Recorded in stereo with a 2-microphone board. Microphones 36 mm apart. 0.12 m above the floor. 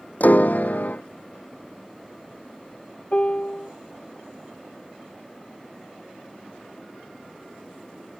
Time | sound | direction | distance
0.2 | a piano | 50° left (ahead or behind) | ?
3.1 | a piano | 40° left (ahead or behind) | ?